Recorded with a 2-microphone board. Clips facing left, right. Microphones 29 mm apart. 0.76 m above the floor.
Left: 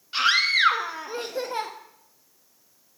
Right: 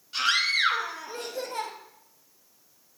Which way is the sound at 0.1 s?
30° left (ahead or behind).